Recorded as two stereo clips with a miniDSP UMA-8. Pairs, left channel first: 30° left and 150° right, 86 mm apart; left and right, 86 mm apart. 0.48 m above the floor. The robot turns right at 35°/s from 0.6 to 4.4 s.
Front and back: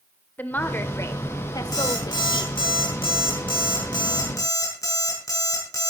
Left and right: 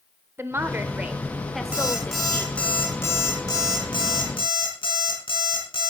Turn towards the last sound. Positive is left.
turn(degrees=80)